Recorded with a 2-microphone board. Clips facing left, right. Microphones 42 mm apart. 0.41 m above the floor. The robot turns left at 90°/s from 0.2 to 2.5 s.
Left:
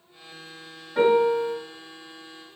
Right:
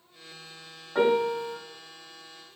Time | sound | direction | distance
0.9 | a piano | 115° right | 1.8 m